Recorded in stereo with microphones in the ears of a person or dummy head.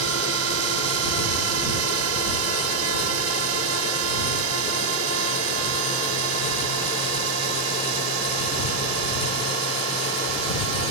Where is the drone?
75° right (ahead or behind); by 10.9 s 70° right (ahead or behind).